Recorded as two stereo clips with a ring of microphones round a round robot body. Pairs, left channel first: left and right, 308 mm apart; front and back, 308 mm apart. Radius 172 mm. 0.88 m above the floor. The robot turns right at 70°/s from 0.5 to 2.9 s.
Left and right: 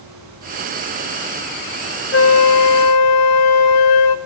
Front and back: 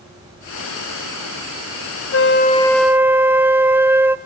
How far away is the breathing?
I don't hear breathing.